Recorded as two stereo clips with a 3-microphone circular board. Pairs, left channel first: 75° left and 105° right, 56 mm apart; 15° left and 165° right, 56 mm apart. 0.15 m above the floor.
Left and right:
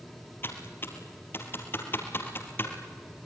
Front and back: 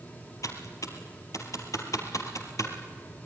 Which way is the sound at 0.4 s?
30° left.